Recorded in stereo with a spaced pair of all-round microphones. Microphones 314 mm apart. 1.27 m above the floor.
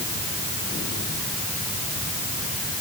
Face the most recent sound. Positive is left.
No sound to turn to.